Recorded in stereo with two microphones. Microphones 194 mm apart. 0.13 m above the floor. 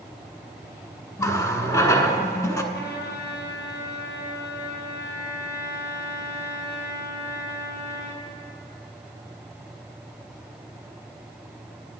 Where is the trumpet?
70° left (ahead or behind), 1.8 m.